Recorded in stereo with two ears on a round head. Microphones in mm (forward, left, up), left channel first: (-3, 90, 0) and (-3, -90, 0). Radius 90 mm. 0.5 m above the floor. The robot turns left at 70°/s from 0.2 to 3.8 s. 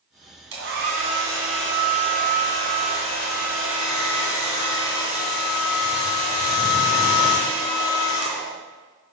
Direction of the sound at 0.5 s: 110° right.